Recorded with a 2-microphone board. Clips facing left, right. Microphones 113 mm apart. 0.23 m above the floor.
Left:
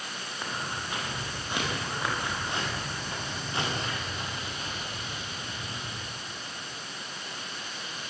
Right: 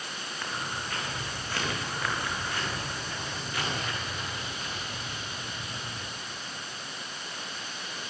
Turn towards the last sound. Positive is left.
turn(degrees=35)  # may be behind; listen again after turning